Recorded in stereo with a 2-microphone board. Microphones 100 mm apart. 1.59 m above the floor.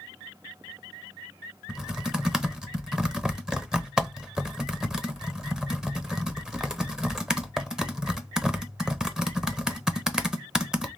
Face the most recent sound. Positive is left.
turn(degrees=-5)  # may be behind; listen again after turning